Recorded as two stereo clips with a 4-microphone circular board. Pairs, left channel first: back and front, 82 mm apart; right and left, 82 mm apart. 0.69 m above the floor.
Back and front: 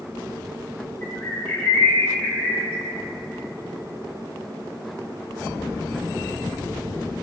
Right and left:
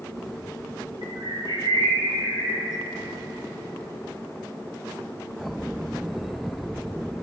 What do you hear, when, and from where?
1.0 s a bird: 120° left, 2 m